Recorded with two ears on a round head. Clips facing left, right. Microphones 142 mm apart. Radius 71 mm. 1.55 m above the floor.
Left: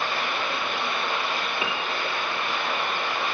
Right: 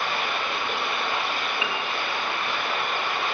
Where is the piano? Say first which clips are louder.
Even; 35° left (ahead or behind), 0.7 m.